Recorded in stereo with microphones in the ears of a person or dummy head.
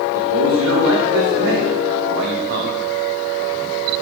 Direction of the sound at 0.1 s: 85° right.